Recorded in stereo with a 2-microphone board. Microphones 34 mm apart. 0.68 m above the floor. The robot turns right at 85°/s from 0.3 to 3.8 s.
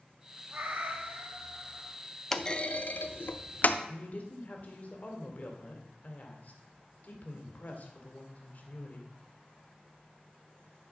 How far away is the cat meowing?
About 1.8 m.